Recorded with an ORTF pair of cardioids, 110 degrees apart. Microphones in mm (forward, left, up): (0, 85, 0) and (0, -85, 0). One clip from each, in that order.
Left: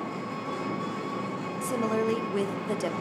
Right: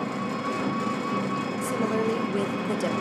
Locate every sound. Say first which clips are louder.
0.0 s an engine running: right 4 dB; 70° right, 1.9 m
1.6 s a woman speaking: even; 5° right, 0.5 m